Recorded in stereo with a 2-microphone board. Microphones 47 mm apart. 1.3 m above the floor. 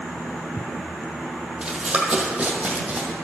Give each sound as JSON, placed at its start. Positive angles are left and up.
{"t": 1.6, "sound": "running footsteps", "side_deg": -15, "distance_m": 1.6}